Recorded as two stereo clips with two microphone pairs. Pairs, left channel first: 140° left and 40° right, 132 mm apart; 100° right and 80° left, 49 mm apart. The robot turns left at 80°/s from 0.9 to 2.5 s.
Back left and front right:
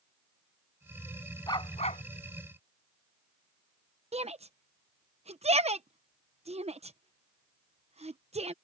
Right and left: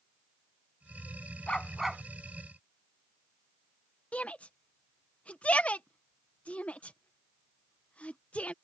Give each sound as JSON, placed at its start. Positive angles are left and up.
{"t": 1.5, "sound": "a dog barking", "azimuth_deg": -160}
{"t": 4.1, "sound": "a shout", "azimuth_deg": -45}